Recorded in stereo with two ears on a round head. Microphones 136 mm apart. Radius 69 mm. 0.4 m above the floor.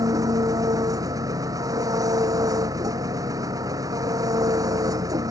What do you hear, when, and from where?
0.0 s an engine running: 25° right (ahead or behind)